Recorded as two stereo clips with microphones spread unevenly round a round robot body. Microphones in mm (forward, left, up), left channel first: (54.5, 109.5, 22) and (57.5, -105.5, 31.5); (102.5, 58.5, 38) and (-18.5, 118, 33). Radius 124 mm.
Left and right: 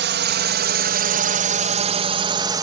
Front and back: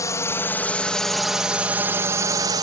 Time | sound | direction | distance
0.0 | a drone | 95° right | ?